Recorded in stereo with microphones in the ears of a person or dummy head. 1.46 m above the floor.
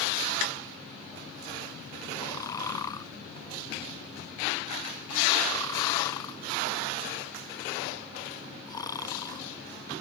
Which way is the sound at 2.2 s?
25° left (ahead or behind).